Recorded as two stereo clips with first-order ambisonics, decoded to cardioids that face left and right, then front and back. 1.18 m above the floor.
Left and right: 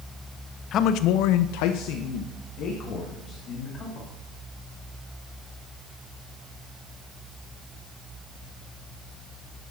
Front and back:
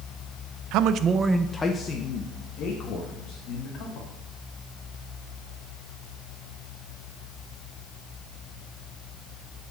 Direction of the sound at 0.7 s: 145° left.